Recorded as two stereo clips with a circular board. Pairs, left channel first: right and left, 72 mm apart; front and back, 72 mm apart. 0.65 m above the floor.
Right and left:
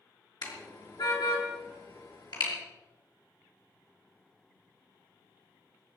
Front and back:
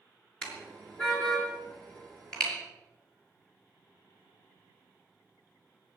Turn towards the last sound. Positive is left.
turn(degrees=-80)